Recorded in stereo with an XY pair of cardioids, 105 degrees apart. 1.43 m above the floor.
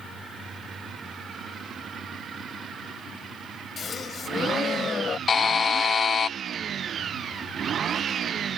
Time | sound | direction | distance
3.8 | a gasp | 45° left | ?
5.3 | a buzzer | 40° left | ?